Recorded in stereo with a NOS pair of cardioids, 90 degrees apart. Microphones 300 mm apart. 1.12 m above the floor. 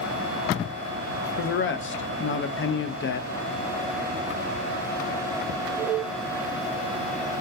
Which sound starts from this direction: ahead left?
A man speaking, at 1.4 s.